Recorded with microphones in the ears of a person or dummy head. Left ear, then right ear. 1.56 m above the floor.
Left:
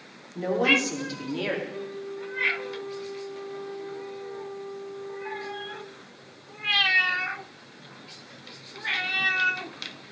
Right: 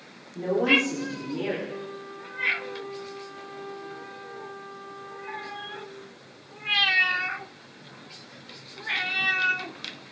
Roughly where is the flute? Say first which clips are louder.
Left 2 dB; right.